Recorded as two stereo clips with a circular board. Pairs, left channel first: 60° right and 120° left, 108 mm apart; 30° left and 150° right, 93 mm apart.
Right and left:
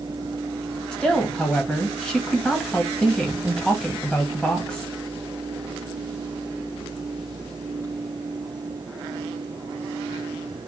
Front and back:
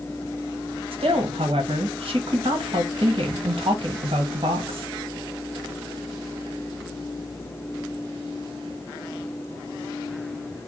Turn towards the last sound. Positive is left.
turn(degrees=-145)